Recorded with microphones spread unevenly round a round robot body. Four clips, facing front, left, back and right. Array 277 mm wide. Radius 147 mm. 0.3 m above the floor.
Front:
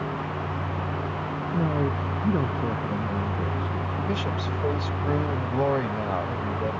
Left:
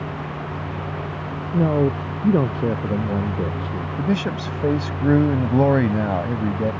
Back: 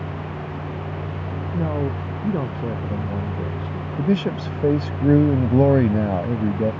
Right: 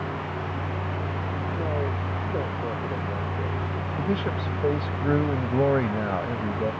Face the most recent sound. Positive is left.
turn(degrees=150)